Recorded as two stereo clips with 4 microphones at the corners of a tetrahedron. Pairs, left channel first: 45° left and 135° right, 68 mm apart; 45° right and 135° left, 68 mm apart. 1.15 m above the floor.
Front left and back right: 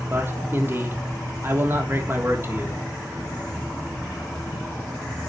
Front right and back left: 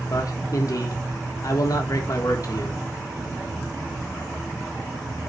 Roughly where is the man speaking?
Right.